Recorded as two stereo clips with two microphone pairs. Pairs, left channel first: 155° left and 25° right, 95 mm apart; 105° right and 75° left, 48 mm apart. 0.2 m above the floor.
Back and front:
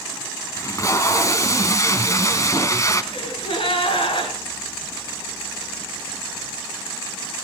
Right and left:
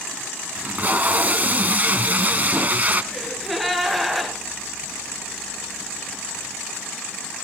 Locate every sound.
0.6 s tape being pulled: 115° left, 1.1 m
3.1 s a gasp: 165° left, 3.5 m